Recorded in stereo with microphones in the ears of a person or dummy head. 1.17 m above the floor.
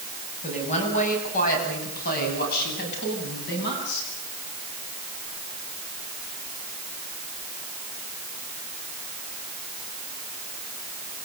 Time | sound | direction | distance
0.4 | a woman speaking | 35° left (ahead or behind) | 8.5 m